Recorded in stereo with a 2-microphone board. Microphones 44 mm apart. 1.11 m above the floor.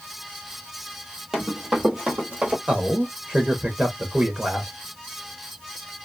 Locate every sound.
1.3 s running footsteps: centre (ahead or behind), 1.2 m; by 2.6 s 30° right (ahead or behind), 1.7 m
2.7 s a man speaking: 25° right (ahead or behind), 0.5 m